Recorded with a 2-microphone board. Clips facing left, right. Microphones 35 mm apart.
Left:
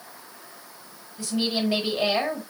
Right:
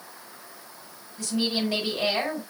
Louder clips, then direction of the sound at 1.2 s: Left 1 dB; 20° left (ahead or behind).